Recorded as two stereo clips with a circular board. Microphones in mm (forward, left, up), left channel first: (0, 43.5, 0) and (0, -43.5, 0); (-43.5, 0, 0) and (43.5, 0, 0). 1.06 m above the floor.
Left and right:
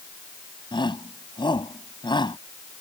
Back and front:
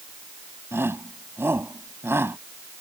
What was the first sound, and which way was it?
A shout, 65° left.